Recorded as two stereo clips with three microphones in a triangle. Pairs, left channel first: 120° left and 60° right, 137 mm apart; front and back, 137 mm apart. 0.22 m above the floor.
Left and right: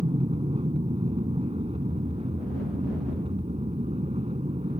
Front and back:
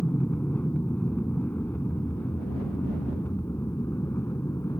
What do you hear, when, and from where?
0.0 s an aircraft: 75° right; by 4.8 s 65° right